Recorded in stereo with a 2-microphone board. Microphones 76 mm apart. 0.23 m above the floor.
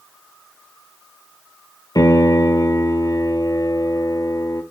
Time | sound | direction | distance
1.9 | a piano | 65° left (ahead or behind) | 1.0 m